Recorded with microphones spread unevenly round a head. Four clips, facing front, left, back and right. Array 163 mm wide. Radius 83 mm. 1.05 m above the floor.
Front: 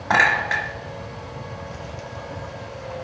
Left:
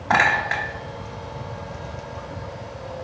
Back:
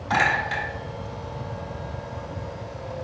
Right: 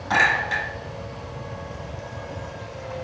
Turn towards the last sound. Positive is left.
turn(degrees=35)